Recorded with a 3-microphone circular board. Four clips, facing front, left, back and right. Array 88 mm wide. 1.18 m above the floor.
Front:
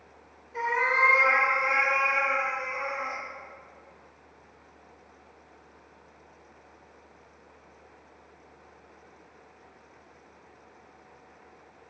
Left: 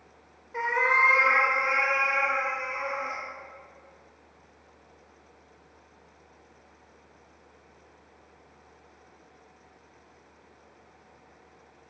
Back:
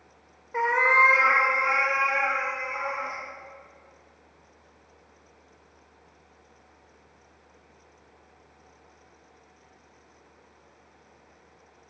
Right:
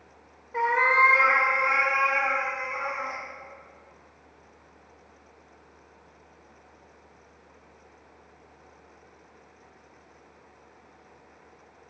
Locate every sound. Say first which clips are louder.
0.5 s a cat meowing: right 3 dB, back 5 dB; 160° right, 0.9 m; by 3.2 s 135° right, 2.5 m